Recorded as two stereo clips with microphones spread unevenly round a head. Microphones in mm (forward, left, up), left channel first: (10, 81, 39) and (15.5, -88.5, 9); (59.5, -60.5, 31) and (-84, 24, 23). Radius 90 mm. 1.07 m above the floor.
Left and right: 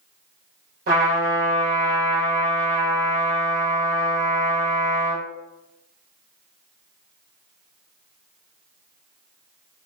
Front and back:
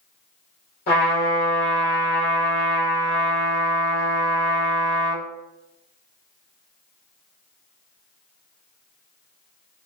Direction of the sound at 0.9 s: 60° right.